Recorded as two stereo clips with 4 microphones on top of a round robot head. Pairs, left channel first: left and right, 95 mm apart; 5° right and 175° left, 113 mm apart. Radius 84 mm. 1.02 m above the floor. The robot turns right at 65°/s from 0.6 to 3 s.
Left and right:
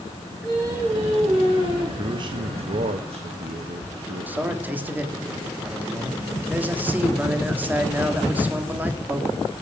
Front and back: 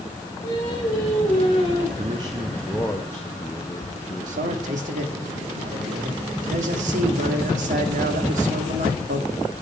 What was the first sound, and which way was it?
Singing, 35° right.